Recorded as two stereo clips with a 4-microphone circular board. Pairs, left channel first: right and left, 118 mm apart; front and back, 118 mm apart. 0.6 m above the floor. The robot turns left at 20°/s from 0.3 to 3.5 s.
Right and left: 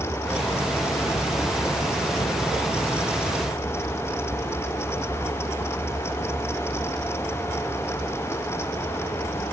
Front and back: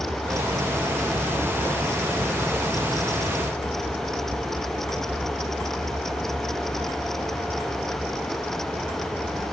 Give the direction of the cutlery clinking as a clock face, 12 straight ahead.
I don't hear cutlery clinking.